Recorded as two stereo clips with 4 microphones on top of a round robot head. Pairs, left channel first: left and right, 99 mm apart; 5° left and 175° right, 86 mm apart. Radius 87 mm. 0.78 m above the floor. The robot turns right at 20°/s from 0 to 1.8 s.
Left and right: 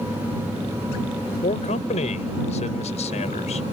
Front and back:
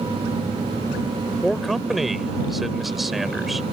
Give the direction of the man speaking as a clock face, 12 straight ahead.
9 o'clock.